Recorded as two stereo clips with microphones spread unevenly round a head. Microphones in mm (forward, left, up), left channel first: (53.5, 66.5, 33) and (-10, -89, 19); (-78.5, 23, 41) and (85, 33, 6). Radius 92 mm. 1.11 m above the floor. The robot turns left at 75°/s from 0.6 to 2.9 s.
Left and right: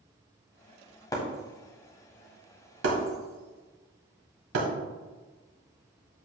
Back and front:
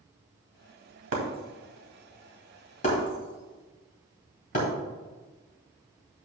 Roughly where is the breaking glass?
Ahead.